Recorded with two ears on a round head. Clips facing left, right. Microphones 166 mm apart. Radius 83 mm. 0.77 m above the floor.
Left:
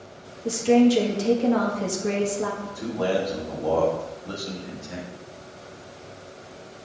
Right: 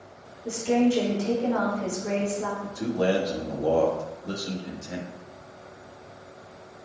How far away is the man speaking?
About 1.4 m.